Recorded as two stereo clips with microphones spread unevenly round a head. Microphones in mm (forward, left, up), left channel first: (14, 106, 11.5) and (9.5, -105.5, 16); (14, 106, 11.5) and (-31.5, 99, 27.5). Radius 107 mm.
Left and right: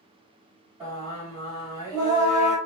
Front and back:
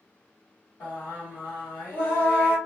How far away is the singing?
About 1.2 m.